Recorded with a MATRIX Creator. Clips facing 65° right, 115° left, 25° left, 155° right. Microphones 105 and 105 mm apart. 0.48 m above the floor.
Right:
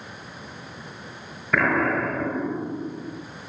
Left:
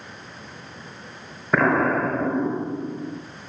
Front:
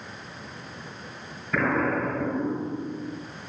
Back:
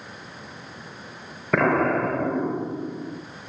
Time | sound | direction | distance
1.5 | an explosion | 175° left | 1.4 m